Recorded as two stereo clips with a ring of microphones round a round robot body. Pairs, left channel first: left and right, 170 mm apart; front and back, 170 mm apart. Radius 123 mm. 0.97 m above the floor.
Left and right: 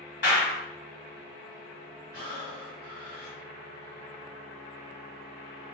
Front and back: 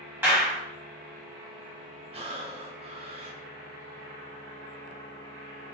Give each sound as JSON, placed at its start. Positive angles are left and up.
{"t": 0.2, "sound": "a clap", "azimuth_deg": 105, "distance_m": 2.0}
{"t": 2.1, "sound": "breathing", "azimuth_deg": 125, "distance_m": 1.1}